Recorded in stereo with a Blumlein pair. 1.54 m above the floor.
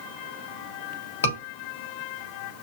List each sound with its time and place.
1.2 s a scream: 65° left, 3 m